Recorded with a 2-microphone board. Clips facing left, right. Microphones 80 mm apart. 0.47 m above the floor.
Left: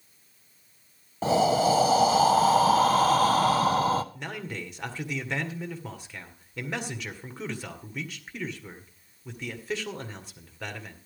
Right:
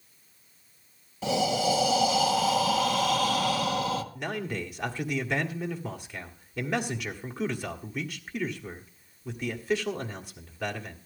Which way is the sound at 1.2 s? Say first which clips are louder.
Left 4 dB; 40° left (ahead or behind).